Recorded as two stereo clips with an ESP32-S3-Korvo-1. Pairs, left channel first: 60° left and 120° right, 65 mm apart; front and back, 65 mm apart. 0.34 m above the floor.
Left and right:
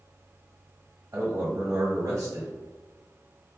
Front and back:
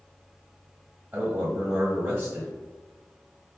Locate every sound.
1.1 s a man speaking: 120° right, 1.3 m